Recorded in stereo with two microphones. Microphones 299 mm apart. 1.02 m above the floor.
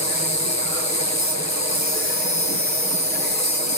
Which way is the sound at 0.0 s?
65° left (ahead or behind).